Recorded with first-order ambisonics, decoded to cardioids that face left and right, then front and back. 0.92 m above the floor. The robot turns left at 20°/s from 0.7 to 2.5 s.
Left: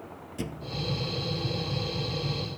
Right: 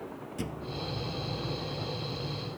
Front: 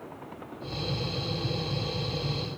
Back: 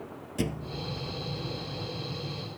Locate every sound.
0.4 s a thud: 175° left; by 0.8 s 170° left